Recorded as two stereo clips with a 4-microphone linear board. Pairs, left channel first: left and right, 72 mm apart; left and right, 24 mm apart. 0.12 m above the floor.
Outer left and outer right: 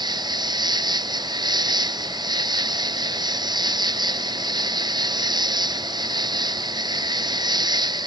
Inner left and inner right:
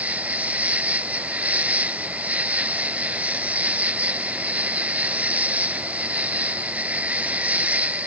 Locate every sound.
0.0 s an insect: 80° right